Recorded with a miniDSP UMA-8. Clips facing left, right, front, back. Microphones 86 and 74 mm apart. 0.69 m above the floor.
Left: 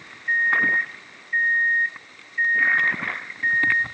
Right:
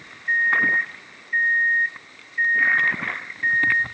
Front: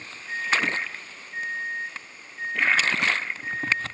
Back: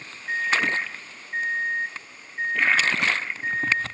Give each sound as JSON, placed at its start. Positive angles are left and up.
{"t": 0.3, "sound": "a microwave", "azimuth_deg": -175, "distance_m": 1.4}